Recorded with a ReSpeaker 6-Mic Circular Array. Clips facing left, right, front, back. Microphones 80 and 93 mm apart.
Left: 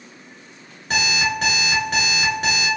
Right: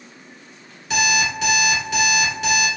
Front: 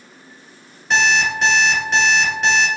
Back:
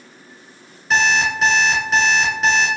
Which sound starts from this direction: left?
An alarm clock, at 0.9 s.